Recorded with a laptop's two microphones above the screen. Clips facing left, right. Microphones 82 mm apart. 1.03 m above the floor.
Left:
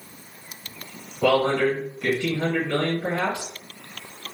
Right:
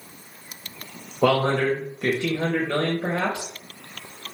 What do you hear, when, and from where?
1.2 s a man speaking: 50° right (ahead or behind), 0.7 m